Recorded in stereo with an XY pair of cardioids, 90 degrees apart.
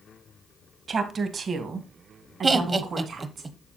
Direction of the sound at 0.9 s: 50° right.